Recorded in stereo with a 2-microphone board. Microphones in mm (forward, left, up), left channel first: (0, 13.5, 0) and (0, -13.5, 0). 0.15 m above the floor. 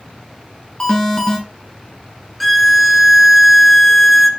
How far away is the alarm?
About 1.3 m.